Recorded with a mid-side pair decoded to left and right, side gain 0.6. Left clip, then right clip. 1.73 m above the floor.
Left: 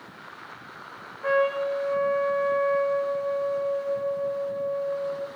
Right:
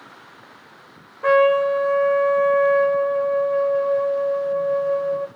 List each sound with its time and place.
1.2 s a trumpet: 45° right, 1.1 m